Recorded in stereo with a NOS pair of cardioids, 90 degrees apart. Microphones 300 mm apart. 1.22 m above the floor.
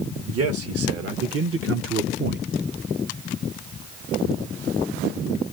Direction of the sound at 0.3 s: 50° right.